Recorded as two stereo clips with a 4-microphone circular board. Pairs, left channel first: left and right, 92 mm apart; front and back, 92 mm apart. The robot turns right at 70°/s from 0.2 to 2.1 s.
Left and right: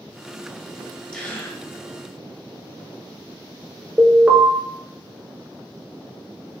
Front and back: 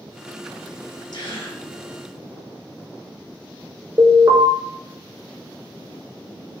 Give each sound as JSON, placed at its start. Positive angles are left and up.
{"t": 1.1, "sound": "a gasp", "azimuth_deg": 15, "distance_m": 1.5}
{"t": 4.0, "sound": "an alarm", "azimuth_deg": -160, "distance_m": 1.1}